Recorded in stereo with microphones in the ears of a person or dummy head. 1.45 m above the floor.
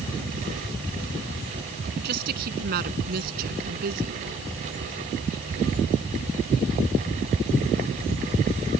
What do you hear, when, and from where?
2.0 s a woman speaking: 55° right (ahead or behind); by 4.2 s 50° right (ahead or behind)